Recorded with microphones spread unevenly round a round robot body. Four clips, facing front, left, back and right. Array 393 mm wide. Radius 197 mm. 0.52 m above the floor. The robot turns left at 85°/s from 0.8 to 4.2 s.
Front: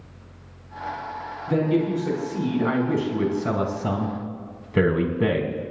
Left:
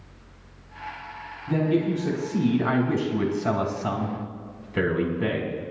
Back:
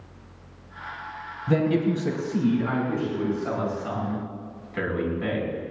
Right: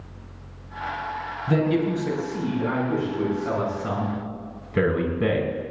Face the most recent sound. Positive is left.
turn(degrees=-20)